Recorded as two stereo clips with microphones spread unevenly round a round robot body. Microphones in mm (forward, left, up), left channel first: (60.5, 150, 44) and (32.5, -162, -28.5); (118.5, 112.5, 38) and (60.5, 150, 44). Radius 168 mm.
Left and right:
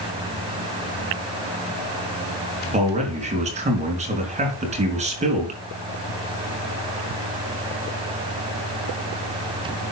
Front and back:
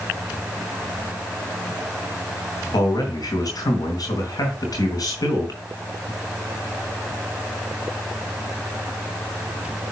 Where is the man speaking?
35° right, 4 m.